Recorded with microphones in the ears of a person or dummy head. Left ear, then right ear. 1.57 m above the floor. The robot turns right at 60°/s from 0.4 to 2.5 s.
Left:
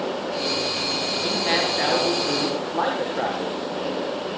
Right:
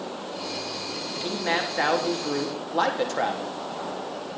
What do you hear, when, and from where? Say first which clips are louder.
1.2 s a man speaking: left 3 dB; straight behind, 3.5 m; by 3.6 s 105° right, 3.5 m